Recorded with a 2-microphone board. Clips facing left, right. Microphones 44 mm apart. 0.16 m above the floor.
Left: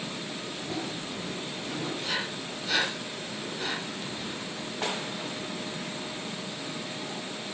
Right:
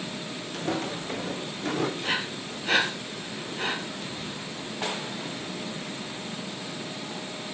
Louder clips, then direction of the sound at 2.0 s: Right 3 dB; 45° right (ahead or behind).